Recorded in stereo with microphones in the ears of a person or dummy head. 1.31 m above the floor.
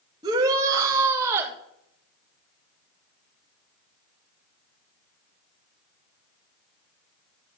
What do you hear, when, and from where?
0.2 s a shout: 25° right (ahead or behind), 2.5 m; by 1.6 s 15° right (ahead or behind), 3.5 m